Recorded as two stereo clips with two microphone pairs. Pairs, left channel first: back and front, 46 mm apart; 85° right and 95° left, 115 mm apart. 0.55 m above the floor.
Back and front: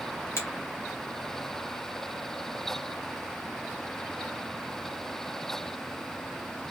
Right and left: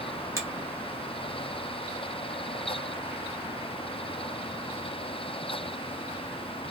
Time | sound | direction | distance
0.4 | a finger snap | 160° left | 1.5 m